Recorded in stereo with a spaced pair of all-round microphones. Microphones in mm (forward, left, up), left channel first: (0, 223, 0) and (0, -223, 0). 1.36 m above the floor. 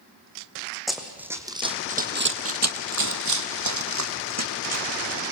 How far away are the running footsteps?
About 3 m.